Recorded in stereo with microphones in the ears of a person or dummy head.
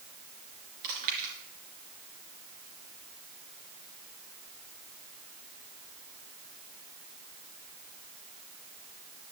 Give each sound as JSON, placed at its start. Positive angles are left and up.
{"t": 0.8, "sound": "chewing", "side_deg": -45, "distance_m": 3.0}